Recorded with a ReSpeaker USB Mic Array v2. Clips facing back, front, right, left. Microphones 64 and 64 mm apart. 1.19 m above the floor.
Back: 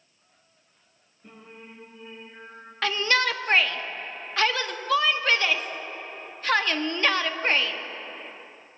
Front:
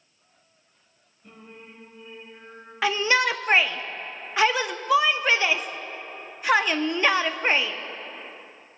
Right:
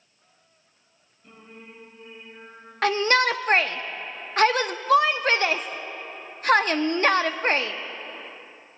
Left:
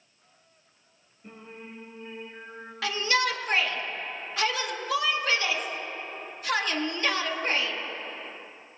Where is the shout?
75° right, 0.6 m.